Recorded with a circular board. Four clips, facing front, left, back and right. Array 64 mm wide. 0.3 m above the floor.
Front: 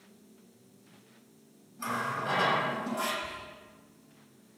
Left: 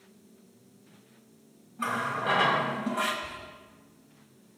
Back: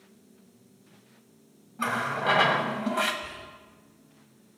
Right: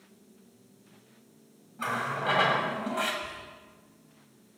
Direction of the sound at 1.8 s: 170° right.